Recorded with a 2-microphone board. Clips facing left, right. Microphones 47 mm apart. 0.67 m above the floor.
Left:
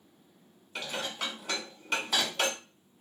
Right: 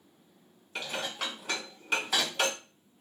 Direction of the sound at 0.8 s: 5° right (ahead or behind).